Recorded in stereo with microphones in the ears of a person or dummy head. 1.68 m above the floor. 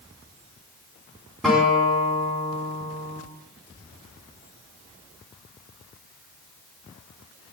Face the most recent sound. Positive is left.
turn(degrees=0)  # may be behind; listen again after turning